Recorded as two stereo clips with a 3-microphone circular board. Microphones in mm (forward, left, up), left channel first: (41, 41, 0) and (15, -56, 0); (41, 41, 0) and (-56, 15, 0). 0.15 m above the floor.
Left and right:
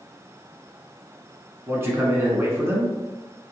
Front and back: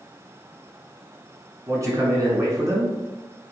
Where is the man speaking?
150° right, 1.3 m.